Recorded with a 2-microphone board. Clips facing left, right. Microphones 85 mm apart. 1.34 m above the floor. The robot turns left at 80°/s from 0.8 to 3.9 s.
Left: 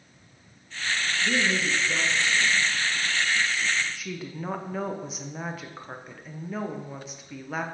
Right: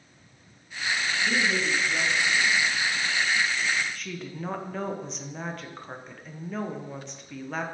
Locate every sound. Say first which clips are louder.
1.2 s a woman speaking: left 1 dB; 155° left, 1.6 m; by 2.7 s 35° left, 1.6 m
4.0 s a woman speaking: left 1 dB; 5° left (ahead or behind), 0.9 m